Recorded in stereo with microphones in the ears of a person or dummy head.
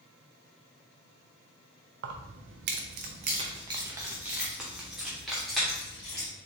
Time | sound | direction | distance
2.0 | keys jangling | 70° right (ahead or behind) | 0.7 m